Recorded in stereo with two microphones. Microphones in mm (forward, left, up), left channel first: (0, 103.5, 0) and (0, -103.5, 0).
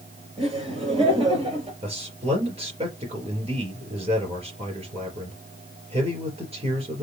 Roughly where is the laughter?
Right.